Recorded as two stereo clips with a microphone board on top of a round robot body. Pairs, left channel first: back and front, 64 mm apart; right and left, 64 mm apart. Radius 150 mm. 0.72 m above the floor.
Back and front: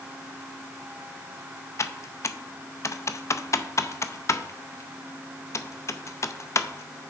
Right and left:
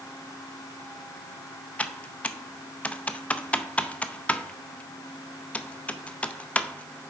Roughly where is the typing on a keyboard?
Behind right.